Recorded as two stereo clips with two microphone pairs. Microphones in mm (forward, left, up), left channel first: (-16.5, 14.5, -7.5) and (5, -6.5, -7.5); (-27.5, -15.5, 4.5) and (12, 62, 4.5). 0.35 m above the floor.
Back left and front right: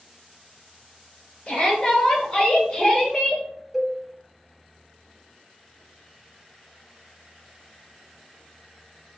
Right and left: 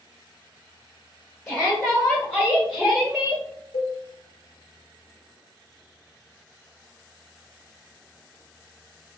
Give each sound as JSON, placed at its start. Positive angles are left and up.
{"t": 1.5, "sound": "a shout", "azimuth_deg": -170, "distance_m": 2.0}
{"t": 3.7, "sound": "a cowbell", "azimuth_deg": -120, "distance_m": 0.6}